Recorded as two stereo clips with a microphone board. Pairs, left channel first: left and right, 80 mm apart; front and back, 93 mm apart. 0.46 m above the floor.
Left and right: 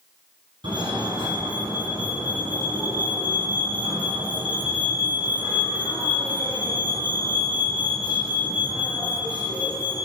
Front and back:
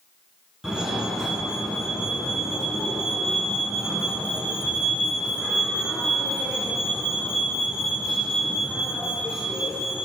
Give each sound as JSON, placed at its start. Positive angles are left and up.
{"t": 0.6, "sound": "a fire alarm", "azimuth_deg": -100, "distance_m": 7.5}